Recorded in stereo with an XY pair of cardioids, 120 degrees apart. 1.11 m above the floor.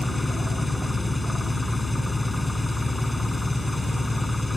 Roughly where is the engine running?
Ahead.